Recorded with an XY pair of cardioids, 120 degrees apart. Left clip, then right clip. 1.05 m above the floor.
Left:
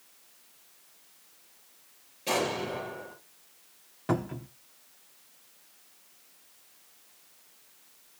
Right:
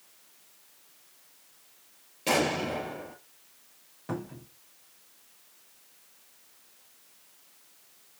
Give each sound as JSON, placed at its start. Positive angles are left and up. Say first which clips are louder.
{"t": 2.3, "sound": "an explosion", "louder": "right 3 dB", "azimuth_deg": -45, "distance_m": 4.5}
{"t": 4.1, "sound": "a cupboard door", "louder": "left 6 dB", "azimuth_deg": 40, "distance_m": 1.1}